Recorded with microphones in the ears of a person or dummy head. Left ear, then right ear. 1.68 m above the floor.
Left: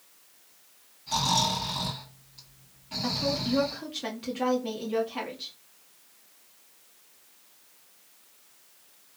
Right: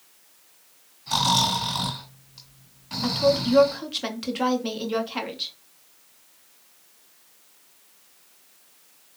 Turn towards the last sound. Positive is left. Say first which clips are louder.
# right 8 dB
turn(degrees=-35)  # may be behind; listen again after turning